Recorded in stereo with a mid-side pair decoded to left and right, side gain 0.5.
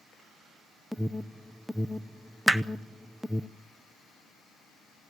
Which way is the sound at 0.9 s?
5° right.